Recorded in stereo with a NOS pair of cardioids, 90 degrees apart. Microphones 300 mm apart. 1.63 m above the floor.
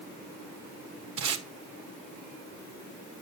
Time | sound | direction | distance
1.2 | tape being pulled | 65° right | 1.5 m